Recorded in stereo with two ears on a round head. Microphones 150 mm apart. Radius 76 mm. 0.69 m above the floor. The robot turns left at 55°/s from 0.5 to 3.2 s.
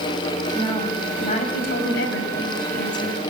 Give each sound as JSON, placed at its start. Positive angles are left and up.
{"t": 0.6, "sound": "a woman speaking", "azimuth_deg": 180, "distance_m": 4.5}